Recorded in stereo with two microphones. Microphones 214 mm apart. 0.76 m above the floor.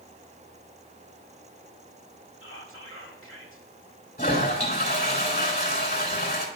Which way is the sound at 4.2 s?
45° left (ahead or behind).